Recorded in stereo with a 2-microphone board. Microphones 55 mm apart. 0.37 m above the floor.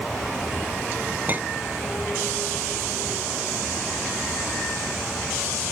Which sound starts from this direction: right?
A clink, at 1.3 s.